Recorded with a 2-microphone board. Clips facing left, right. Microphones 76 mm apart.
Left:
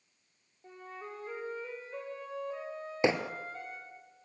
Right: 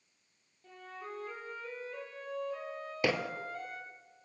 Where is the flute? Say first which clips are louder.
Left 1 dB; 25° left (ahead or behind), 5 m.